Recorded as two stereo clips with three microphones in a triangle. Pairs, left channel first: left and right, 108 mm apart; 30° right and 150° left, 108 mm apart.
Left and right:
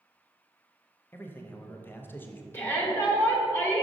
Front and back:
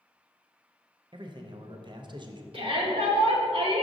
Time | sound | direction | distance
1.1 | a man speaking | 155° left | 0.5 m
2.5 | a shout | 155° left | 1.4 m